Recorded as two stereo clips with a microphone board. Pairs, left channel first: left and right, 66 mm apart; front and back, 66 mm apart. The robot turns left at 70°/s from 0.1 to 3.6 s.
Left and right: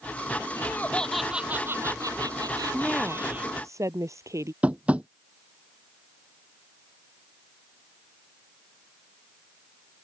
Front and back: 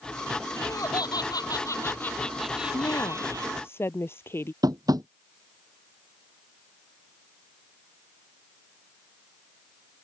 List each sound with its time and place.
0.6 s laughter: 40° left; by 3.5 s 165° right
2.7 s a woman speaking: 5° left; by 4.5 s 55° right
4.6 s tapping: 160° right